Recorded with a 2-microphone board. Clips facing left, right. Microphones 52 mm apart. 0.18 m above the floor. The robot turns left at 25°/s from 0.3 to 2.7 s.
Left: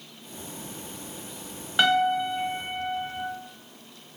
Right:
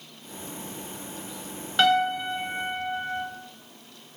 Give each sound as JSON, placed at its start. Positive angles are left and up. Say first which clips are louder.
{"t": 1.8, "sound": "a piano", "louder": "even", "side_deg": 10, "distance_m": 0.8}